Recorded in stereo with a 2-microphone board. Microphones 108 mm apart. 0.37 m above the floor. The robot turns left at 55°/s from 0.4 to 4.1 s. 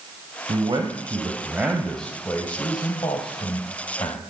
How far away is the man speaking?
About 2.5 m.